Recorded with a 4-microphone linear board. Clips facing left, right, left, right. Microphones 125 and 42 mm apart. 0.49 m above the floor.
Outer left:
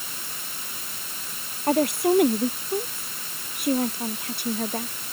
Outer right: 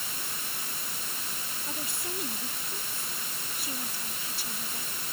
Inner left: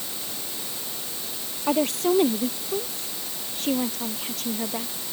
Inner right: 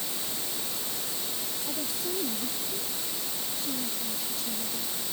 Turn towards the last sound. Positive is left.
turn(degrees=60)  # may be behind; listen again after turning